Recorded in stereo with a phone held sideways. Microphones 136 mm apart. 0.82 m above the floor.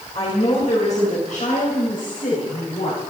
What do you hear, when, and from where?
0.1 s a woman speaking: 50° left (ahead or behind), 4.5 m; by 3.0 s 80° left, 6 m